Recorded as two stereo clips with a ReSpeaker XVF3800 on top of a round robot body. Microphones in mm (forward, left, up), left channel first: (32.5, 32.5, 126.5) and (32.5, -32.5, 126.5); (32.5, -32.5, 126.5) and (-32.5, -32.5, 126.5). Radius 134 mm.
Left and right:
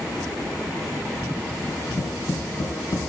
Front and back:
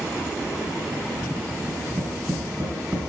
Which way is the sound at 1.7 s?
115° left.